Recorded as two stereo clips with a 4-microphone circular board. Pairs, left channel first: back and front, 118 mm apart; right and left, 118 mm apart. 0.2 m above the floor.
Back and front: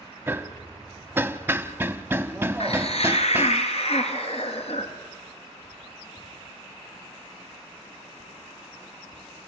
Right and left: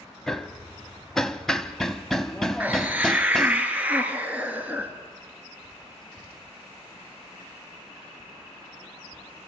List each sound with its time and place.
0.3 s hammering: 15° right, 0.7 m
2.6 s a hiss: 165° left, 1.9 m